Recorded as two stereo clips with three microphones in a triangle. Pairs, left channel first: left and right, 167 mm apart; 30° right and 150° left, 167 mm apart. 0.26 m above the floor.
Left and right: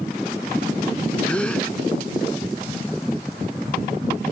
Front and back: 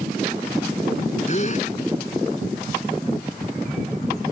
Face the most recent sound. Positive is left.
turn(degrees=10)